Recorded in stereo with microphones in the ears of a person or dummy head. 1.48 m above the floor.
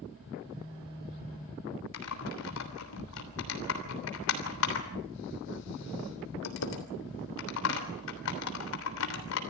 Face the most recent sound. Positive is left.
turn(degrees=75)  # may be behind; listen again after turning